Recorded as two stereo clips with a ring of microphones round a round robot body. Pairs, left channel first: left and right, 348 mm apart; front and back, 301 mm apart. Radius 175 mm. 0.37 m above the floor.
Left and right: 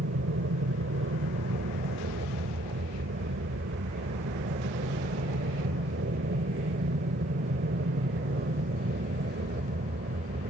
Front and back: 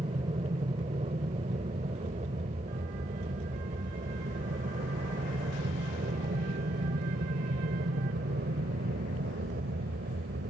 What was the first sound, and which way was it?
An aircraft, 120° right.